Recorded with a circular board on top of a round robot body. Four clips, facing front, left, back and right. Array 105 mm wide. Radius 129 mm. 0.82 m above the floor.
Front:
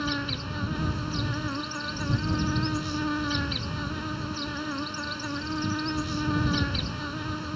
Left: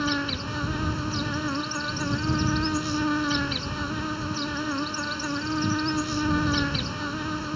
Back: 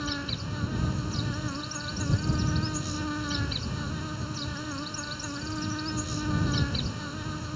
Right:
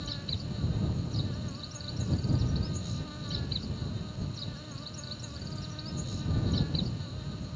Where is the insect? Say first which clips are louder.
Left 14 dB, front 3 dB; 75° left.